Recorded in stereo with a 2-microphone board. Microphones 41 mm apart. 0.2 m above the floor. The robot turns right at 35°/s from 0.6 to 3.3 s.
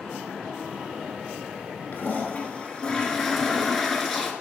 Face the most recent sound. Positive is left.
turn(degrees=175)